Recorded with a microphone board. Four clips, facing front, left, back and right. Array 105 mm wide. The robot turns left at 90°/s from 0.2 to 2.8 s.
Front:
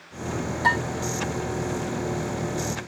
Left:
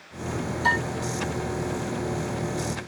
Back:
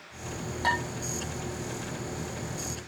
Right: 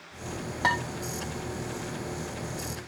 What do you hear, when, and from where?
0.6 s dishes clattering: 85° right, 5 m; by 0.8 s 100° right, 5 m